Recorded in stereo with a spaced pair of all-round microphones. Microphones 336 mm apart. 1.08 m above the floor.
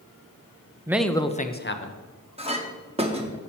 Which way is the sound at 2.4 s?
20° right (ahead or behind).